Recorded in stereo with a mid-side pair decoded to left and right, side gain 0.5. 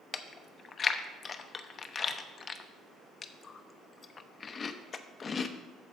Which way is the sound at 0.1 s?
35° left.